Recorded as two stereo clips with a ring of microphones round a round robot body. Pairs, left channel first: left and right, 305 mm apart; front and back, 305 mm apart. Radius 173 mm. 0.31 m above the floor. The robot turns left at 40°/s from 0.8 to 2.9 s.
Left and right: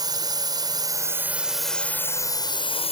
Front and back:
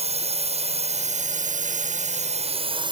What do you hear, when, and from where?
0.0 s a drone: 150° right; by 2.9 s 130° left